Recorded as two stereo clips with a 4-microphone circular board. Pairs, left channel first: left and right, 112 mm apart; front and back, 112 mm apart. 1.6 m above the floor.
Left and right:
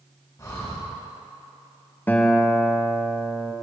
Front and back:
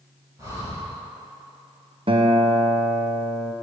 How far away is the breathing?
About 1.9 m.